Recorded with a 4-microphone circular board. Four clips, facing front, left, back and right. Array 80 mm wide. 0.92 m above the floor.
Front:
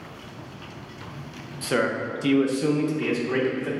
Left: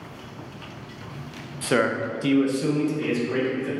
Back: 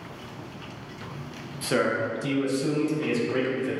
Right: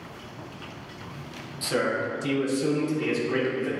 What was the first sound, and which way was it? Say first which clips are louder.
A man speaking: left 4 dB, even; 95° left.